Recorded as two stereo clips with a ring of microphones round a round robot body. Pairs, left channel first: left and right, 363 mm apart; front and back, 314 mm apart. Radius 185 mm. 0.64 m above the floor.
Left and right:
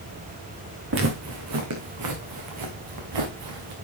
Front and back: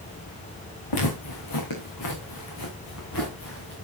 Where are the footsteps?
35° right, 3.5 m; by 3.7 s 60° right, 4 m.